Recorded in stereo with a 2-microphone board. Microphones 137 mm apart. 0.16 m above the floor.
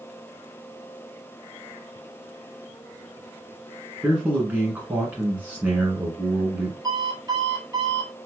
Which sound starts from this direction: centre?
A man speaking, at 4.0 s.